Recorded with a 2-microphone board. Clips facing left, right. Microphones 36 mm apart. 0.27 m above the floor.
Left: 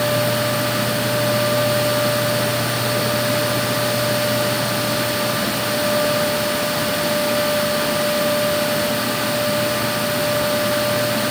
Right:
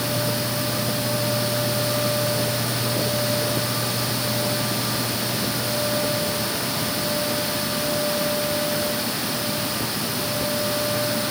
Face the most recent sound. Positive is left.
No sound to turn to.